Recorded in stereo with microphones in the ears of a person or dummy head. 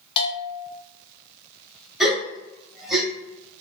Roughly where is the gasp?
Centre.